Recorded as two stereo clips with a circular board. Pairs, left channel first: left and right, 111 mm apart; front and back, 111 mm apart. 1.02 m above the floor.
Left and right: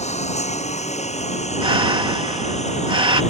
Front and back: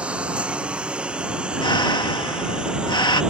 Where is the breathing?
45° right.